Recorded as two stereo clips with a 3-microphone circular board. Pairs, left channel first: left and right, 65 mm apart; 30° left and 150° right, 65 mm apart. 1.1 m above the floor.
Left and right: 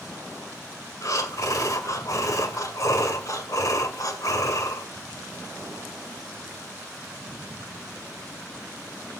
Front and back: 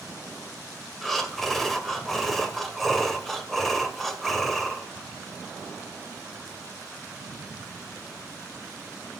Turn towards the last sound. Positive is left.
turn(degrees=115)